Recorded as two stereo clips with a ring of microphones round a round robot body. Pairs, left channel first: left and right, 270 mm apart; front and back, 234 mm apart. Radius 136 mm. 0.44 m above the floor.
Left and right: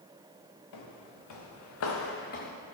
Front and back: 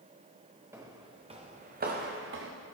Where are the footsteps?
100° left, 1.8 m; by 2.5 s 150° left, 1.6 m.